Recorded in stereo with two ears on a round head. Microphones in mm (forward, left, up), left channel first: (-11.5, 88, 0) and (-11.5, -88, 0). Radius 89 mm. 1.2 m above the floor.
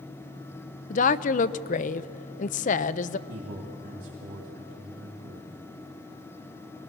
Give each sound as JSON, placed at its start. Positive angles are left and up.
{"t": 0.9, "sound": "a woman speaking", "side_deg": 40, "distance_m": 0.5}
{"t": 3.3, "sound": "a man speaking", "side_deg": -50, "distance_m": 3.0}